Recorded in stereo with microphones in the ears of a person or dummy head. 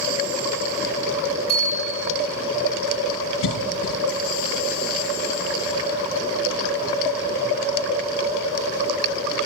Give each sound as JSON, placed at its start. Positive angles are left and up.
{"t": 1.5, "sound": "a bicycle bell", "side_deg": 25, "distance_m": 8.5}
{"t": 3.4, "sound": "a cough", "side_deg": 75, "distance_m": 1.4}